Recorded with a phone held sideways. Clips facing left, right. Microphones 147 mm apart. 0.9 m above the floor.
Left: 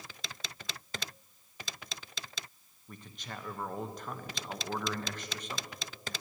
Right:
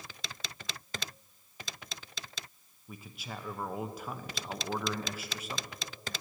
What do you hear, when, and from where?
2.9 s a man speaking: 5° right (ahead or behind), 0.6 m